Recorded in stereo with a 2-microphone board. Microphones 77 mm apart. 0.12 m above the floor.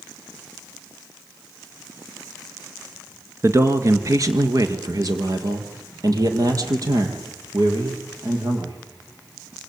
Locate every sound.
3.4 s a man speaking: 40° right (ahead or behind), 2.0 m; by 8.8 s 50° right (ahead or behind), 6.5 m